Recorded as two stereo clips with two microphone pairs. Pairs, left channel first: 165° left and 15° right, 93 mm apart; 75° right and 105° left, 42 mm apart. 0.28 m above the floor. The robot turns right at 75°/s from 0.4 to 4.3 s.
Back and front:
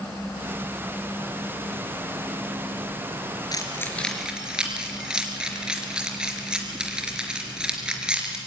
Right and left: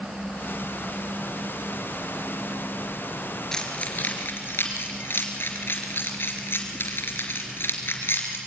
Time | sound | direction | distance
3.5 | keys jangling | 150° right | 3.5 m